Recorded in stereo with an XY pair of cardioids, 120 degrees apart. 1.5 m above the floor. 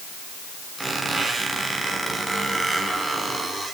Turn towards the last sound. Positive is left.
turn(degrees=-5)